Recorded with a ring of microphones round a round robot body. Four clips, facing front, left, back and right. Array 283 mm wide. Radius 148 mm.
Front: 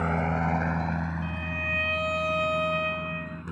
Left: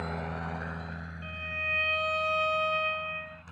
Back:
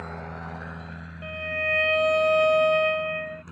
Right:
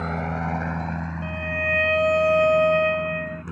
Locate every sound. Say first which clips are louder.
0.0 s a helicopter: right 8 dB, front 10 dB; 35° right; by 3.5 s 65° right
1.2 s a violin: right 10 dB, back 3 dB; 120° right